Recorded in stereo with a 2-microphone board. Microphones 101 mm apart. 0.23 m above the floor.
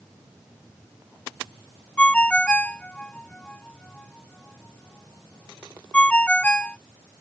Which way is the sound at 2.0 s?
10° left (ahead or behind).